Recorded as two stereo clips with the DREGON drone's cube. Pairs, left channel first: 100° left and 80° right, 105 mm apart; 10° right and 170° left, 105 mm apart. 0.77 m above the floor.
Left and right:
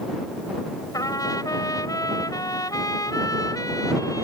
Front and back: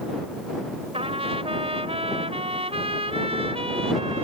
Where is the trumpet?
155° left.